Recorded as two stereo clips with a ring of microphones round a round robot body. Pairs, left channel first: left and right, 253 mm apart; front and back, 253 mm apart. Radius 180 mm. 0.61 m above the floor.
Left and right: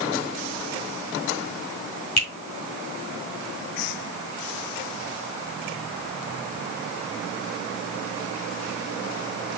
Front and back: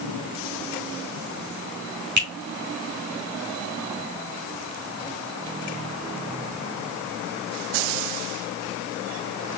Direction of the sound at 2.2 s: 140° left.